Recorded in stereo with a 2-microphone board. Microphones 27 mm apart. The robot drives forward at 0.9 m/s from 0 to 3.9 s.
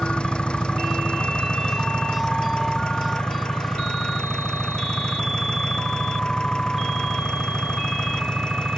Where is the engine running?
35° left (ahead or behind); by 8.8 s 25° left (ahead or behind).